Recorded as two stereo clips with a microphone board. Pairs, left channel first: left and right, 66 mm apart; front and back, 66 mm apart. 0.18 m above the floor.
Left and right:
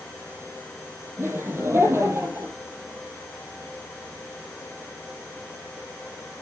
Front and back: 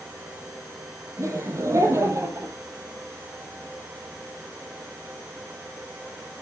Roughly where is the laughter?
Behind right.